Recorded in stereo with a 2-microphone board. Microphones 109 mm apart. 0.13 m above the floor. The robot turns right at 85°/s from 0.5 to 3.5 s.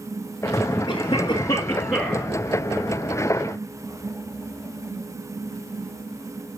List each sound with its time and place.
0.9 s a cough: 70° left, 2 m; by 2.3 s 170° right, 2 m